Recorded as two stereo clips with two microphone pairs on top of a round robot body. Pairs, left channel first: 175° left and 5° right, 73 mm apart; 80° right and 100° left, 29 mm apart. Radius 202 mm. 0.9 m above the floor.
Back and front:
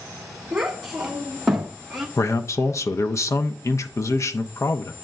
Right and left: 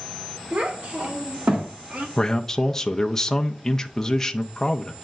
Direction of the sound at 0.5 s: 80° left.